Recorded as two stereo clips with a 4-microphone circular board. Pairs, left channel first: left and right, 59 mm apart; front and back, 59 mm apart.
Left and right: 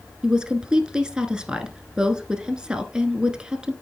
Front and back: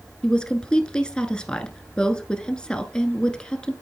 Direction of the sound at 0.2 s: 45° right.